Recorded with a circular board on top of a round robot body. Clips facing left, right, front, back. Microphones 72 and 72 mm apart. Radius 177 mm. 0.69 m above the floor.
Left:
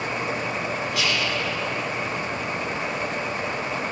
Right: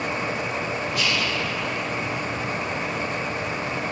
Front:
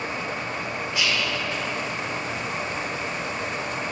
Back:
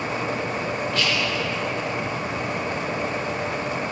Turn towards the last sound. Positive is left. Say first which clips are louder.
# even, even
turn(degrees=75)